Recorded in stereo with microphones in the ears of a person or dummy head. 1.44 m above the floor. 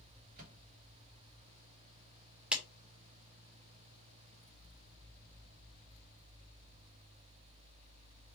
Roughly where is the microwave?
Right.